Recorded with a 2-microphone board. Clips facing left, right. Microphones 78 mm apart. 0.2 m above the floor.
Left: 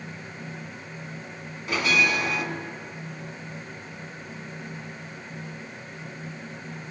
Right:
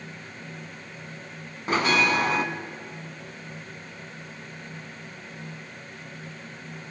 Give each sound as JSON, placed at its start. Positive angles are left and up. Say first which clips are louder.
{"t": 1.7, "sound": "a bell", "louder": "right 2 dB", "side_deg": -35, "distance_m": 1.0}